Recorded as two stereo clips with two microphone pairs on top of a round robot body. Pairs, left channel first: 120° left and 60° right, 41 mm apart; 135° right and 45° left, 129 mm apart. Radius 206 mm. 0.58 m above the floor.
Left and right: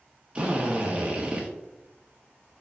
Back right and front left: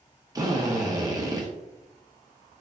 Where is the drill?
5° right, 1.3 m.